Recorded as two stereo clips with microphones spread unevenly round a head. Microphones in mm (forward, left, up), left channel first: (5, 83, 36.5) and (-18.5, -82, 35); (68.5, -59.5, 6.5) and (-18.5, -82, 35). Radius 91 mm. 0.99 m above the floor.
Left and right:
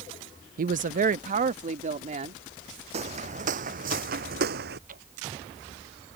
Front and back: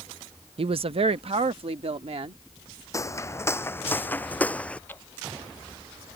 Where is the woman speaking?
135° right; by 2.4 s 150° right.